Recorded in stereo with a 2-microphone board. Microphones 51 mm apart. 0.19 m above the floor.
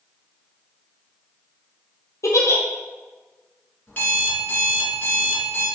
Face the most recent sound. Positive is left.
turn(degrees=35)  # may be behind; listen again after turning